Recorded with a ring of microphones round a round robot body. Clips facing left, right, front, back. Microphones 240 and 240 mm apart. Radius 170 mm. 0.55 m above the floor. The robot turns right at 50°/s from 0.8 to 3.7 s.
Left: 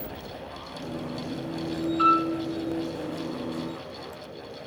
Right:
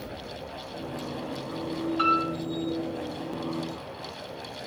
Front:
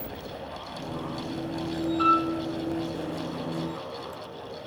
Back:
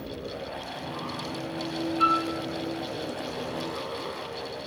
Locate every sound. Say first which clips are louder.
2.0 s a piano: left 3 dB, front 3 dB; 55° right, 1.1 m; by 2.3 s 40° right, 1.1 m